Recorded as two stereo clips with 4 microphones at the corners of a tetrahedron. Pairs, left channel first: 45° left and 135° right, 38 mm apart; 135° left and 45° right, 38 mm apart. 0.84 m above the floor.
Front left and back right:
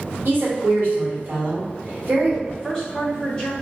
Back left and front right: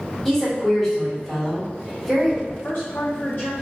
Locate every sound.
0.2 s a woman speaking: 140° right, 1.4 m
2.5 s a woman speaking: 115° left, 1.8 m